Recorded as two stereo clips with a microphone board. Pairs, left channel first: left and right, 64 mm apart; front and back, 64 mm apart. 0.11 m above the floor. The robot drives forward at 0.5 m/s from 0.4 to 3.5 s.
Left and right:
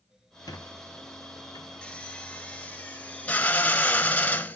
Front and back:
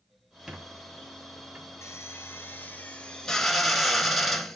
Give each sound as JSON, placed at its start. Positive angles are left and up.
{"t": 0.5, "sound": "a squeak", "azimuth_deg": 100, "distance_m": 1.5}
{"t": 1.8, "sound": "a drill", "azimuth_deg": 20, "distance_m": 1.2}